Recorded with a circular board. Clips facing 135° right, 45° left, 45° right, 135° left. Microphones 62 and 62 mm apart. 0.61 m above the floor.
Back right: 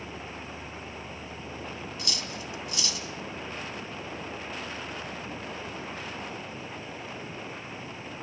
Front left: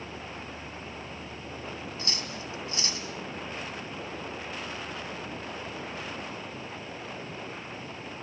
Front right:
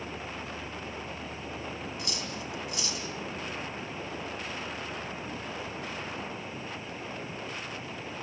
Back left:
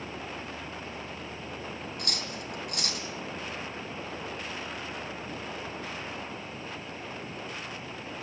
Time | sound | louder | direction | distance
2.0 | cutlery clinking | even, even | 100° left | 3 m